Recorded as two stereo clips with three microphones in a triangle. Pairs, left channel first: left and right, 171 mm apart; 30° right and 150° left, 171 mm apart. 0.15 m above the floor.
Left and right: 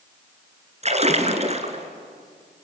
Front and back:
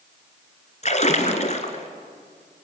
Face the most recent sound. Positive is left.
turn(degrees=-60)